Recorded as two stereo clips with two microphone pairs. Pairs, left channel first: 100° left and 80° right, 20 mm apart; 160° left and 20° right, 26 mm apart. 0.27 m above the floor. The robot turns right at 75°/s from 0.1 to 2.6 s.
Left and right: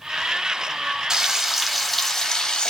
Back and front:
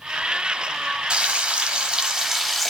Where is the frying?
35° right, 0.9 m; by 2.7 s 75° left, 0.9 m.